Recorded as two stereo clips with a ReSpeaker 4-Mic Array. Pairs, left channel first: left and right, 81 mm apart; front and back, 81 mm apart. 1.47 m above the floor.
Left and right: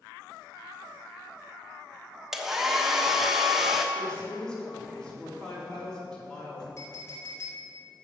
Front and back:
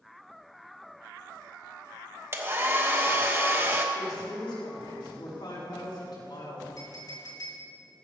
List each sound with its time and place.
2.3 s a hair dryer: 165° right, 1.0 m
4.0 s a woman speaking: 10° left, 4 m
6.8 s a clink: 40° left, 3 m